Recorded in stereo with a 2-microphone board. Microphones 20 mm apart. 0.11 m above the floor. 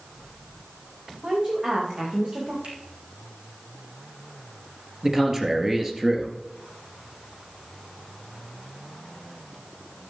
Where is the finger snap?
75° right (ahead or behind), 5 m.